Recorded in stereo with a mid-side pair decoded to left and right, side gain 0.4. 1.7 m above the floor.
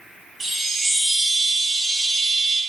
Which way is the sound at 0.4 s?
25° right.